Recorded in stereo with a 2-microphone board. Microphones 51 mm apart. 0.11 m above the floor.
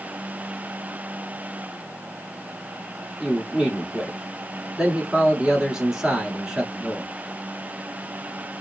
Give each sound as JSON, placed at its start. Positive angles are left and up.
{"t": 3.2, "sound": "a man speaking", "side_deg": -15, "distance_m": 1.1}